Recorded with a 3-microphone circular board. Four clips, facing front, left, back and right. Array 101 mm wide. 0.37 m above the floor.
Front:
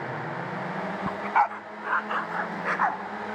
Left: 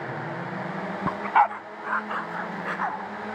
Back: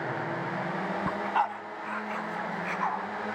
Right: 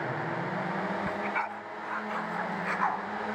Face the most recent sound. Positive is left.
turn(degrees=15)